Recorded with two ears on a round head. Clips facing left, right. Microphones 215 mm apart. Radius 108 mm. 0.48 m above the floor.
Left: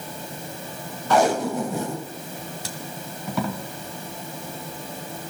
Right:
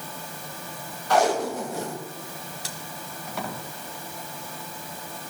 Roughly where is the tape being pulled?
Left.